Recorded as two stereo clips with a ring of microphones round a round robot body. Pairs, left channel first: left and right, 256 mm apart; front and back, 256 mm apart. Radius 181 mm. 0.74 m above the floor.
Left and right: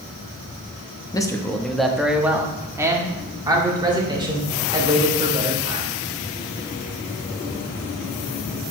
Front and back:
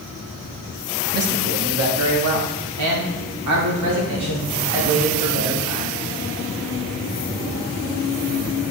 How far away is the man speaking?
About 0.9 m.